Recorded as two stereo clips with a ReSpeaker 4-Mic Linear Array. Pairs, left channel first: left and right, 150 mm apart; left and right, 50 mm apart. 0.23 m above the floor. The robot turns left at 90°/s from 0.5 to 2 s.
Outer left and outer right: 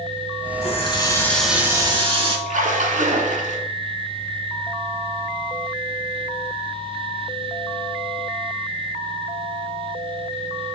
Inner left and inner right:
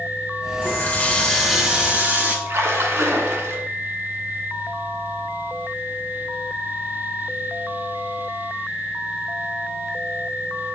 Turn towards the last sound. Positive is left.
turn(degrees=-65)  # may be behind; listen again after turning